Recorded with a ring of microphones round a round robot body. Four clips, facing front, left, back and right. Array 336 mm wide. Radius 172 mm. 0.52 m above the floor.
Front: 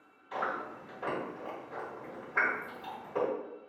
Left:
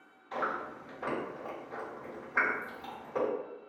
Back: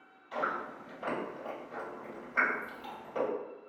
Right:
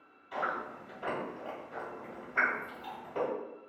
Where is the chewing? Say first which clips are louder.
Even, even; 50° left, 1.7 m.